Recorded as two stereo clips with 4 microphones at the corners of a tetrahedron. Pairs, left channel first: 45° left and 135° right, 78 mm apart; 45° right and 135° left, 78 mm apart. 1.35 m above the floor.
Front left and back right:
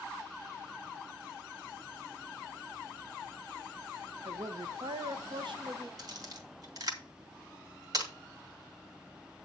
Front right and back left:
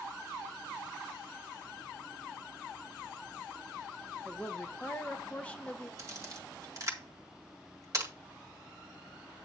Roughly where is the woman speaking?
Behind right.